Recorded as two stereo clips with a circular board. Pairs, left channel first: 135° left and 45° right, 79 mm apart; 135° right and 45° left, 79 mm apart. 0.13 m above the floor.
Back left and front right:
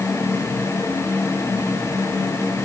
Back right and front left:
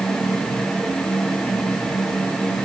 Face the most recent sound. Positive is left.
No sound to turn to.